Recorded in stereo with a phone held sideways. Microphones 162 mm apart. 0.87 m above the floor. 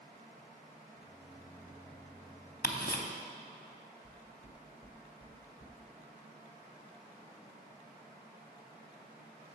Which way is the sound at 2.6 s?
65° left (ahead or behind).